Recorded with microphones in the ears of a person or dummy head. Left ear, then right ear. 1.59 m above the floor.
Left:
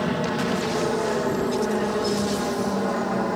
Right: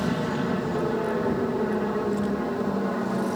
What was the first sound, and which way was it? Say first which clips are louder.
An aircraft: left 3 dB; 20° left (ahead or behind).